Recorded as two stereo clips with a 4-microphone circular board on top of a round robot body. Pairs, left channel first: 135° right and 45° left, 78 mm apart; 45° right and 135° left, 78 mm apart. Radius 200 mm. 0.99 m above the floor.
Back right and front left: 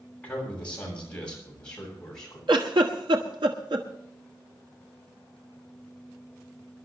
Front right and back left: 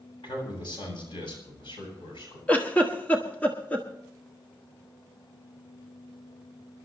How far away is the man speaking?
About 8 m.